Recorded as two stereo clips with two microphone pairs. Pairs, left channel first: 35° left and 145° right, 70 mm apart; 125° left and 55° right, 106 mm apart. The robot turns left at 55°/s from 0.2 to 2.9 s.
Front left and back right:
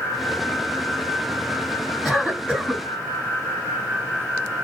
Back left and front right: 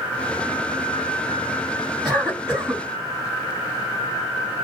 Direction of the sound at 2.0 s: 55° right.